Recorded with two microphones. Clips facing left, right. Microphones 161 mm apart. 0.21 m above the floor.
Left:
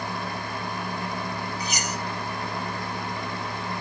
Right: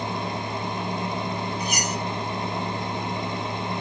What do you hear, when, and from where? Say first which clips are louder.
1.6 s cutlery clinking: right 3 dB; 55° right (ahead or behind), 3.5 m